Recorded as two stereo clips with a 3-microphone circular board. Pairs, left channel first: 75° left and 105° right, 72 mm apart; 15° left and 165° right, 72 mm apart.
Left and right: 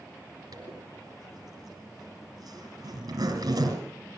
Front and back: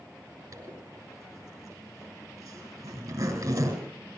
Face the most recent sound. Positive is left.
turn(degrees=-135)